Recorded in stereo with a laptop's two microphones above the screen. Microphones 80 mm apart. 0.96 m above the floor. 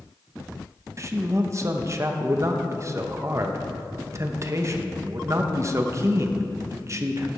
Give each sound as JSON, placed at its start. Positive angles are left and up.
{"t": 1.0, "sound": "a man speaking", "side_deg": -35, "distance_m": 1.0}